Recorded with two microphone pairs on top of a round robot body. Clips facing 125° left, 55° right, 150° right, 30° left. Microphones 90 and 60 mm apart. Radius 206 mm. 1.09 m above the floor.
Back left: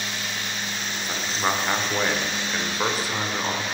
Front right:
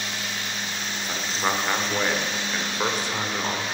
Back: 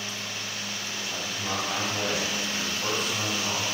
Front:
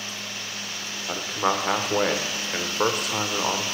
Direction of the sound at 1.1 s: 40° left.